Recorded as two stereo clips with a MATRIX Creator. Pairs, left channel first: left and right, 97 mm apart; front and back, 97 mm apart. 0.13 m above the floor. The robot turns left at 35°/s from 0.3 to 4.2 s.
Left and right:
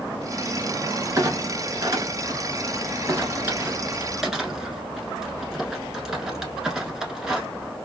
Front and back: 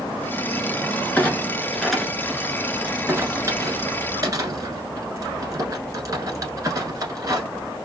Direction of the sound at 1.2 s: 65° right.